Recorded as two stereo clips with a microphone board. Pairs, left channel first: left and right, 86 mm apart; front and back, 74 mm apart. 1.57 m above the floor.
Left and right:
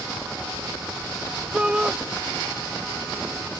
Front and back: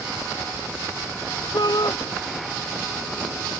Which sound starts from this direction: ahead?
A shout, at 1.5 s.